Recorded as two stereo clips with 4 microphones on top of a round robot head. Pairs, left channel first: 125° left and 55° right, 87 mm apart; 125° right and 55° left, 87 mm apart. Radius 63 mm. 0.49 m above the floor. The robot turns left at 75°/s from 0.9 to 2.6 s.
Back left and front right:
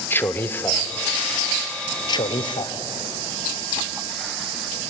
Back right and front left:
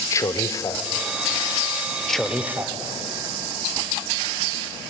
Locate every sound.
0.1 s a man speaking: 170° right, 1.5 m
2.1 s a man speaking: 150° left, 1.6 m; by 2.7 s 110° left, 1.6 m